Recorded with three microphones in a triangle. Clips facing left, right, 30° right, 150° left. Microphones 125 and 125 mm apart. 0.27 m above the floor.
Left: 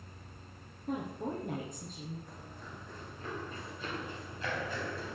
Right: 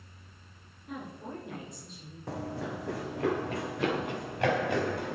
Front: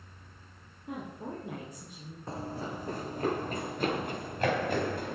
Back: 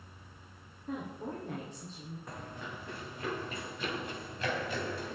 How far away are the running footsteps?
About 0.9 m.